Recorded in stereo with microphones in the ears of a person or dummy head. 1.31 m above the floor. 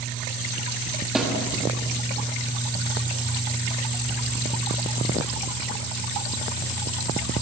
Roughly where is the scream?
No scream in this recording.